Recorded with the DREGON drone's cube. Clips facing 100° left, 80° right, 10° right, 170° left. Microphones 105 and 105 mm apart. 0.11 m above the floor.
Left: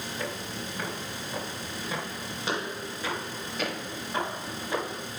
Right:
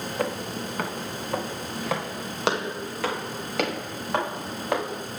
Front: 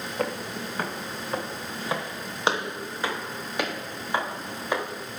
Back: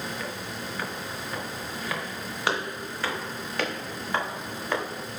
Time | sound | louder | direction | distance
0.2 | footsteps | right 8 dB, front 5 dB | 50° right | 4 m